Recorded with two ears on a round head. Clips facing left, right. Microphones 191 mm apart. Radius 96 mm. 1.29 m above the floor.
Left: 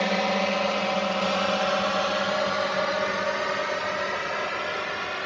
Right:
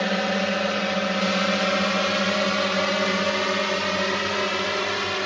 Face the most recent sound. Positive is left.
turn(degrees=-60)  # may be behind; listen again after turning